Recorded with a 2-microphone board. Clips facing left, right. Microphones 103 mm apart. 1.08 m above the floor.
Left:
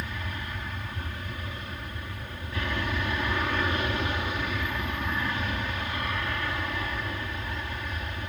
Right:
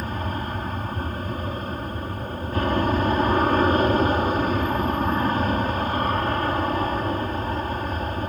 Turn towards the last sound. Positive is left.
turn(degrees=-45)  # may be behind; listen again after turning